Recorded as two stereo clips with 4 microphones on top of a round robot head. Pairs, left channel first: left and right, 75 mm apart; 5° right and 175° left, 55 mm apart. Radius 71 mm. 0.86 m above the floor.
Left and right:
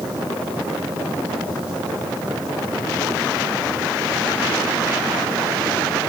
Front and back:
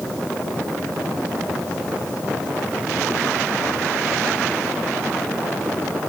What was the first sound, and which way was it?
Only background noise.